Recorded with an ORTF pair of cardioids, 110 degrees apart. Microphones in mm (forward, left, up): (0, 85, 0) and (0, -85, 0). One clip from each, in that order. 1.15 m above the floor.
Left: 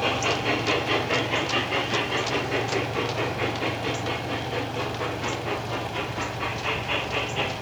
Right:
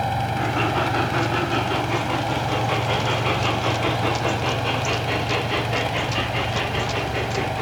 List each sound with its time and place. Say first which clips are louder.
0.0 s a fan: even; 50° right